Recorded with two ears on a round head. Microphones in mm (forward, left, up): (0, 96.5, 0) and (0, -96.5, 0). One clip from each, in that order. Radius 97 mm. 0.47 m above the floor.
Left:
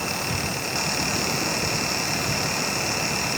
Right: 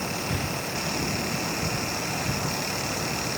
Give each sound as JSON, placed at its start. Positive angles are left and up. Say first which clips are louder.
{"t": 0.3, "sound": "breathing", "louder": "left 3 dB", "side_deg": -10}